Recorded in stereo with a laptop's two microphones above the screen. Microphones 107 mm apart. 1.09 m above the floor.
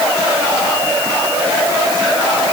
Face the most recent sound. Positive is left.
No sound to turn to.